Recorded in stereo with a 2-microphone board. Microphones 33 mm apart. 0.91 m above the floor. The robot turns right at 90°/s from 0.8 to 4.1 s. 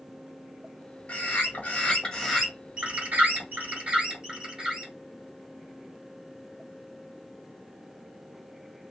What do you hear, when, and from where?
1.1 s a bird: 70° left, 1.5 m; by 4.9 s 20° right, 1.5 m